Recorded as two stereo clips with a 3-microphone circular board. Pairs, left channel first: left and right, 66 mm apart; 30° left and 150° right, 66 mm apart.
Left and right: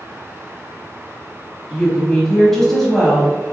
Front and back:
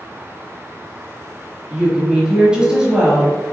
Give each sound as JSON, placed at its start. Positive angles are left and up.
{"t": 1.7, "sound": "a woman speaking", "azimuth_deg": 165, "distance_m": 1.1}